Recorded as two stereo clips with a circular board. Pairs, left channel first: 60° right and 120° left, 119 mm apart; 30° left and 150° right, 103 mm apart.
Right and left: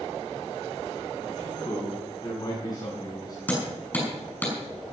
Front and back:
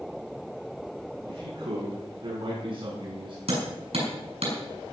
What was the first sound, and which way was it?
A man speaking, 115° right.